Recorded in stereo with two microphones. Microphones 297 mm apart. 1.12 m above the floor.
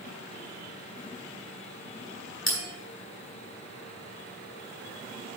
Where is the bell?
45° left (ahead or behind), 4.5 m.